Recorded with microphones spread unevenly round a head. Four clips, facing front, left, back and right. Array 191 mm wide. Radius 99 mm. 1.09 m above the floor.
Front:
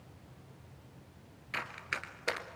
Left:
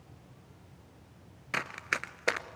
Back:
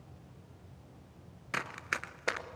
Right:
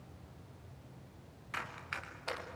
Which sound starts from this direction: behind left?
Running footsteps, at 1.5 s.